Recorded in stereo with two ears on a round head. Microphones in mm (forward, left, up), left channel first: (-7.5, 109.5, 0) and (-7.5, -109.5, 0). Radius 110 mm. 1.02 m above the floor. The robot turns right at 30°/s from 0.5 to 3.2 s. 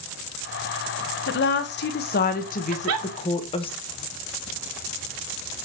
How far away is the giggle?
About 0.8 m.